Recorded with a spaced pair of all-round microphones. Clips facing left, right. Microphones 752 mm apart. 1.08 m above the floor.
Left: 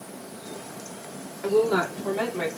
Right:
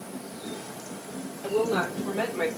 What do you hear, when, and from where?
1.4 s a woman speaking: 85° left, 3 m; by 2.5 s 60° left (ahead or behind), 3.5 m